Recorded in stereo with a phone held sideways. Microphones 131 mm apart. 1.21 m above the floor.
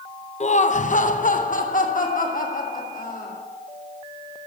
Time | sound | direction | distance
0.4 | laughter | 55° left (ahead or behind) | 0.6 m